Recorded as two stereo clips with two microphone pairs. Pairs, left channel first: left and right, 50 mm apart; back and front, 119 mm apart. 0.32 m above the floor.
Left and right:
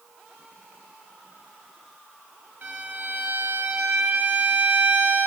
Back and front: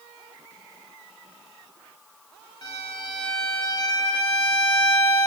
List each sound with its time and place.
2.6 s a violin: 130° right, 0.9 m